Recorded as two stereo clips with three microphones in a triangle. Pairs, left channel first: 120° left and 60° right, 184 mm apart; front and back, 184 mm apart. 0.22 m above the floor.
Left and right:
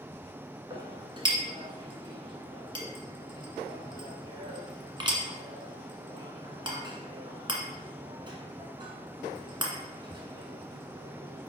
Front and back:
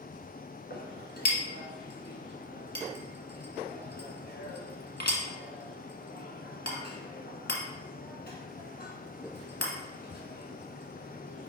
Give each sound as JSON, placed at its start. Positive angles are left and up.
{"t": 0.7, "sound": "a clink", "azimuth_deg": 0, "distance_m": 1.5}